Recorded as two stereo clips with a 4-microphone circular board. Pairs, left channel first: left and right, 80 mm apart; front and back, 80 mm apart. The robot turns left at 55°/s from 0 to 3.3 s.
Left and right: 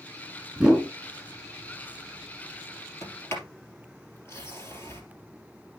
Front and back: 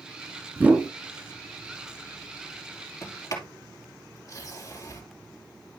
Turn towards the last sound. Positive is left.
turn(degrees=35)